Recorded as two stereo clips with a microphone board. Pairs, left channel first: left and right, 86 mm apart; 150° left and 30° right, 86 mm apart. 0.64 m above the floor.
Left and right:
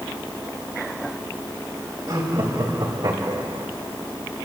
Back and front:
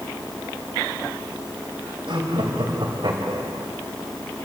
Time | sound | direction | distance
2.1 | laughter | 50° right | 3.5 m